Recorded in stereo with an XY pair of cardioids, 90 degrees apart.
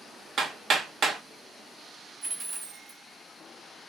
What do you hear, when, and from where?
0.4 s hammering: 65° right, 1.9 m
2.2 s a dropped coin: 50° right, 1.3 m